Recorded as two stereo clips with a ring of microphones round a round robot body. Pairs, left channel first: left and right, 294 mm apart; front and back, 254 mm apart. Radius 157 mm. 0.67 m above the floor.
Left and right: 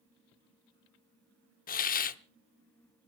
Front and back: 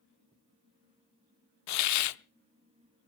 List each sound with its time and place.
1.7 s a hiss: 25° left, 0.7 m